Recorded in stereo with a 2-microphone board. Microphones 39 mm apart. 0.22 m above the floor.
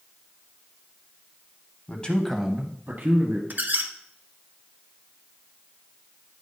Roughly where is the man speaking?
Left.